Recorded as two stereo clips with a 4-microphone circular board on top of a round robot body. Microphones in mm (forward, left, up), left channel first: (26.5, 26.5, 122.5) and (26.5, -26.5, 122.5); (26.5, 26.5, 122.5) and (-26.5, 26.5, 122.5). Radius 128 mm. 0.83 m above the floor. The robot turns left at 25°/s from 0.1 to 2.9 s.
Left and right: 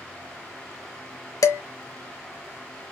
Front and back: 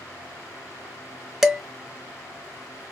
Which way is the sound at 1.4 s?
95° left.